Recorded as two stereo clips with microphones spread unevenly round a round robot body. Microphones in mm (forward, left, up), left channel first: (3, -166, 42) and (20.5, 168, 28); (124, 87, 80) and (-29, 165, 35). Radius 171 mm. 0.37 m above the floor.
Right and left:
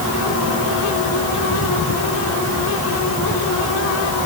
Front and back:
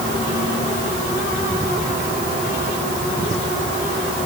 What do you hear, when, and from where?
Only background noise.